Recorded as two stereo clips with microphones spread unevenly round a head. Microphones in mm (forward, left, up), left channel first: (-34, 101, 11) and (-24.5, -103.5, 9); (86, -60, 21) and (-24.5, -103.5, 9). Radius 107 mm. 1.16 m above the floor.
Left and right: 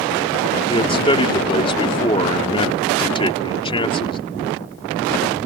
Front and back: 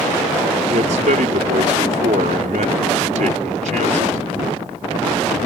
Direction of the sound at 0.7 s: 155° left.